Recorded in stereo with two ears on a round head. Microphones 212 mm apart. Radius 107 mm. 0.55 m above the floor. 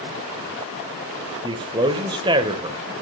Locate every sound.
1.4 s a man speaking: 20° right (ahead or behind), 1.7 m